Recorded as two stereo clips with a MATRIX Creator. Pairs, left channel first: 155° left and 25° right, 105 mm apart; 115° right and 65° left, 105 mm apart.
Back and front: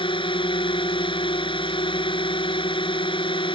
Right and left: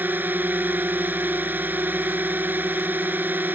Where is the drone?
140° left.